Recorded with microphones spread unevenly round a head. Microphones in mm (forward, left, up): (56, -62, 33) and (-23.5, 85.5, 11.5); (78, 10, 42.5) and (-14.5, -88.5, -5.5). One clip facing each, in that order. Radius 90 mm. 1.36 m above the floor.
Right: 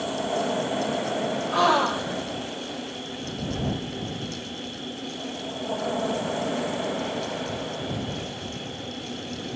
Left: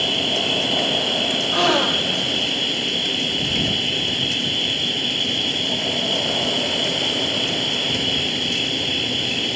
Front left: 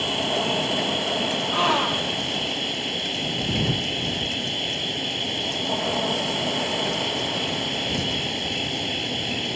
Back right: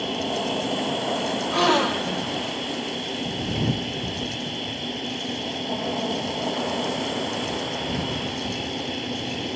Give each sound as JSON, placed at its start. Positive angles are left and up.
{"t": 0.0, "sound": "an insect", "azimuth_deg": 115}
{"t": 1.5, "sound": "a gasp", "azimuth_deg": 180}